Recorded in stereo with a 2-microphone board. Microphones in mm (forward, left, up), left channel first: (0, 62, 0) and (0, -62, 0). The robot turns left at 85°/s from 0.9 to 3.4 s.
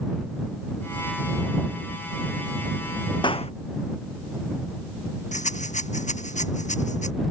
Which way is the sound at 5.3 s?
75° left (ahead or behind).